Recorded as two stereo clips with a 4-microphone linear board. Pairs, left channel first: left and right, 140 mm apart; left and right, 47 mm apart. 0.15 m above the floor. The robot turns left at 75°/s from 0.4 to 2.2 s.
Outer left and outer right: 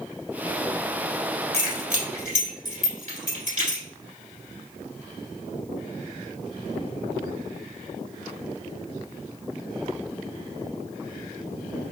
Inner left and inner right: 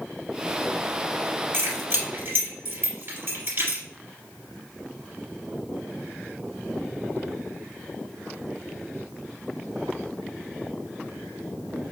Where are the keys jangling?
50° right (ahead or behind), 1.9 m; by 3.8 s 55° right (ahead or behind), 1.9 m.